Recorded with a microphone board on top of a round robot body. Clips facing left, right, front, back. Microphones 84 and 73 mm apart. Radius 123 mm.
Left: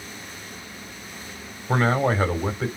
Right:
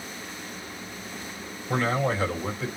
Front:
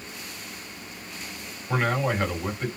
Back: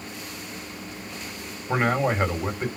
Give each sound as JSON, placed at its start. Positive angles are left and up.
{"t": 1.7, "sound": "a man speaking", "azimuth_deg": 115, "distance_m": 2.0}